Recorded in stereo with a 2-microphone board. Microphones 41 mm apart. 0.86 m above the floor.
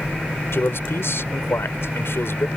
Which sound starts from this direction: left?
A man speaking, at 0.5 s.